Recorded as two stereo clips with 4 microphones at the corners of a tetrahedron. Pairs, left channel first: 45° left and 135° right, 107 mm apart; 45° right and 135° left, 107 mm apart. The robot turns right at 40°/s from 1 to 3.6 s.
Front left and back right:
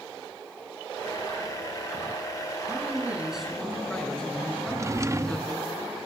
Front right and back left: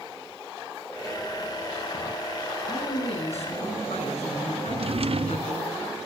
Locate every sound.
2.7 s a man speaking: 75° right, 9 m; by 5.7 s 40° right, 9 m
4.7 s a drawer: 160° left, 0.6 m